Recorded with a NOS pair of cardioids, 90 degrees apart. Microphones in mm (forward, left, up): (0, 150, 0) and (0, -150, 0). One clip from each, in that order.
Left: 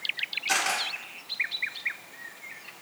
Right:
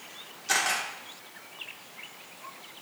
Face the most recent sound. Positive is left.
turn(degrees=5)